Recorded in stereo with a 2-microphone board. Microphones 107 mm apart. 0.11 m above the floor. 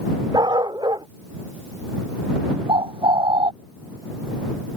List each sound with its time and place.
0.3 s a dog barking: 40° right (ahead or behind)
2.7 s a bird: 55° right (ahead or behind)